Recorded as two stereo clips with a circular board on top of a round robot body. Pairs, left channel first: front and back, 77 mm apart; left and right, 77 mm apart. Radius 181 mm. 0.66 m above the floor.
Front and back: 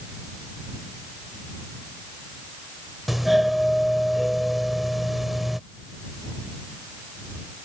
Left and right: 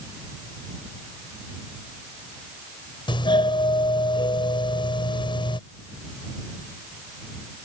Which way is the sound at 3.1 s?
90° left.